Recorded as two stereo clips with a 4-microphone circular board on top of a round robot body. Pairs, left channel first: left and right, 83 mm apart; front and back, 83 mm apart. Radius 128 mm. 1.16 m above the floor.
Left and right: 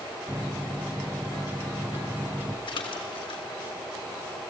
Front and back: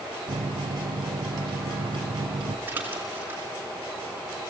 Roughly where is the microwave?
Behind.